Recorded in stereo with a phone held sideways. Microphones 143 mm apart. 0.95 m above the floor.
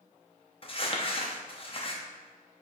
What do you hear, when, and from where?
0.6 s crumpling: 40° left (ahead or behind), 0.6 m